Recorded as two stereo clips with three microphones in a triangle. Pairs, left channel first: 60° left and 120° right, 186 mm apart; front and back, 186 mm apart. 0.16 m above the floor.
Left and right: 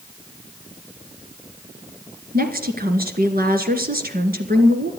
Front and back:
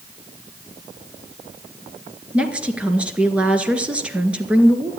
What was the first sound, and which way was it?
A woman speaking, 95° right.